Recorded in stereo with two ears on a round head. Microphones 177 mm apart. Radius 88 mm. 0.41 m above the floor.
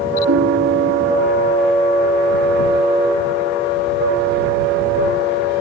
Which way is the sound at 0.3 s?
70° right (ahead or behind).